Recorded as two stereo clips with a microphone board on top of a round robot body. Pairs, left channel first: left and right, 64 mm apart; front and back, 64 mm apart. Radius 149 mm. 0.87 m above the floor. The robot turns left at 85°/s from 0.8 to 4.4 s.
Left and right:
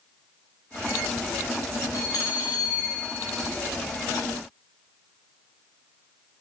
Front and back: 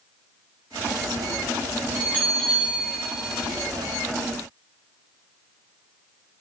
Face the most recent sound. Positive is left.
turn(degrees=-75)